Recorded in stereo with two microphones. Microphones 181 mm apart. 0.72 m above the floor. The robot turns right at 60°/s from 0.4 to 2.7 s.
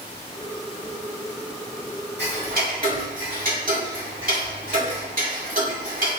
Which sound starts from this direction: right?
Ticking, at 2.2 s.